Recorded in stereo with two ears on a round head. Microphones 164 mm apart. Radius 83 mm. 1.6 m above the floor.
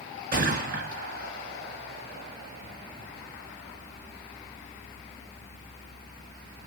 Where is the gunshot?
55° right (ahead or behind), 3 m.